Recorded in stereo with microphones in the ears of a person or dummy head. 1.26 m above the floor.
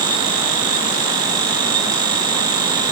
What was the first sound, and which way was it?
Only background noise.